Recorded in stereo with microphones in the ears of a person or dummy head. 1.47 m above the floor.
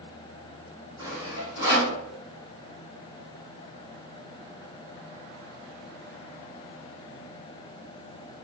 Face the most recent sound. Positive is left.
turn(degrees=-15)  # may be behind; listen again after turning